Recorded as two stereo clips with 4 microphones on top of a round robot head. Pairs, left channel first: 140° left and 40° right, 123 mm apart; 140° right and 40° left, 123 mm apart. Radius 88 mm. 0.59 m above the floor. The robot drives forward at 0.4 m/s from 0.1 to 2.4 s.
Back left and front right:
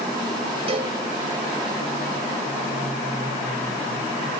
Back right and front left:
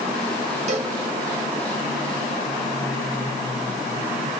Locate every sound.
0.7 s a cowbell: 5° left, 1.0 m